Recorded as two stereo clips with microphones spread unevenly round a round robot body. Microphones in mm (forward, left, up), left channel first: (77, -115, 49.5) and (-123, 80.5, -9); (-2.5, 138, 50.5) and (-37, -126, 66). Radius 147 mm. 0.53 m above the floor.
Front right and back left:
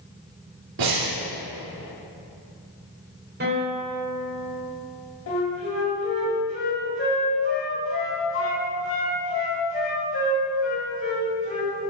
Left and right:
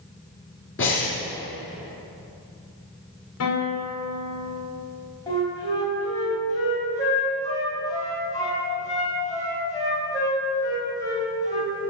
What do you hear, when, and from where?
0.8 s breathing: 130° left, 3 m
3.4 s a guitar: 90° left, 1.8 m
5.3 s a flute: 5° left, 2 m